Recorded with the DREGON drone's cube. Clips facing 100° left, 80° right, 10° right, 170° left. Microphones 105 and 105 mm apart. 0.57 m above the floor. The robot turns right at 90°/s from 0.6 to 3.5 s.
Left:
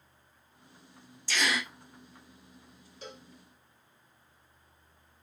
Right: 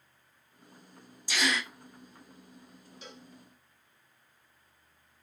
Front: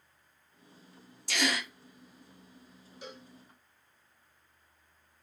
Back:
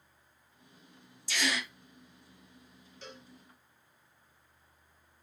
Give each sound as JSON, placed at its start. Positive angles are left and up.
{"t": 1.3, "sound": "a gasp", "azimuth_deg": -5, "distance_m": 0.8}
{"t": 3.0, "sound": "a cowbell", "azimuth_deg": 65, "distance_m": 1.1}